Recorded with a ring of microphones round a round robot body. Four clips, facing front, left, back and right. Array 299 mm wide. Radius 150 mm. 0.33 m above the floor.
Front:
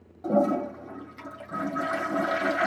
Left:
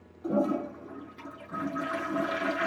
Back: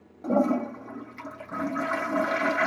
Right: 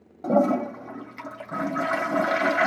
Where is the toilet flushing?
95° right, 1.8 m.